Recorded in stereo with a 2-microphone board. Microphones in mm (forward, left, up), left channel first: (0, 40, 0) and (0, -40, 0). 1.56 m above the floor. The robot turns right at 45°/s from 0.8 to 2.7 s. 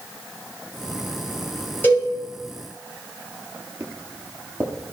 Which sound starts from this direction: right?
Footsteps, at 3.8 s.